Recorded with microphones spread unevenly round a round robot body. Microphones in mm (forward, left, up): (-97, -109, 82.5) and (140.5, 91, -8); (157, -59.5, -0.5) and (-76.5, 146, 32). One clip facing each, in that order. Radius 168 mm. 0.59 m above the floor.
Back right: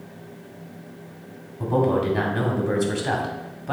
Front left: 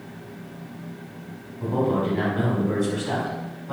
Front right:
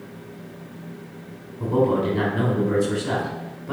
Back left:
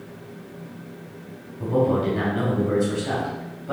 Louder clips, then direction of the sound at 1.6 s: Back right 2 dB, front right 1 dB; 135° right.